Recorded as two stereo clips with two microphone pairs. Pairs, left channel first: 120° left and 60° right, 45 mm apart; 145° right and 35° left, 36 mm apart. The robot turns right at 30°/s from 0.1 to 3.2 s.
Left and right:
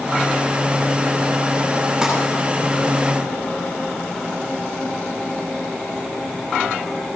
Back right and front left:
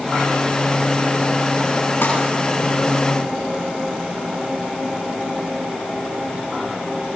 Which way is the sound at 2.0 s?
140° right.